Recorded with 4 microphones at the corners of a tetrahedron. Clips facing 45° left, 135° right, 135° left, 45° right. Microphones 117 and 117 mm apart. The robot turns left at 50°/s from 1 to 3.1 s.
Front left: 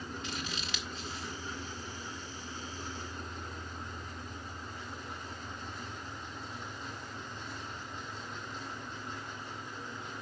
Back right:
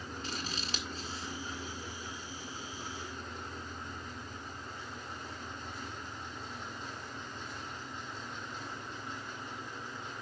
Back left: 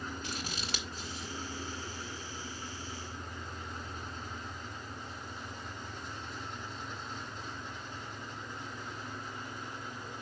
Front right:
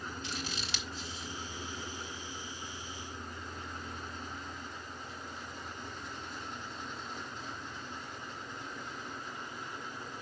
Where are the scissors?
175° left, 1.8 m; by 1.4 s 155° left, 1.8 m.